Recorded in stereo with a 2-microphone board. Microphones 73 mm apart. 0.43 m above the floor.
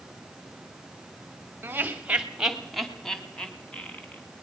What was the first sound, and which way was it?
Laughter, 25° right (ahead or behind).